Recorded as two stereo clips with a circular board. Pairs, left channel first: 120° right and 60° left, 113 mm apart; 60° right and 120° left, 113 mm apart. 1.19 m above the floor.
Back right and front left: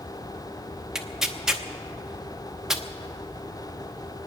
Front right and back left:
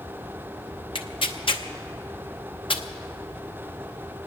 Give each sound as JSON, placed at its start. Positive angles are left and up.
{"t": 0.9, "sound": "tearing paper", "azimuth_deg": -25, "distance_m": 0.9}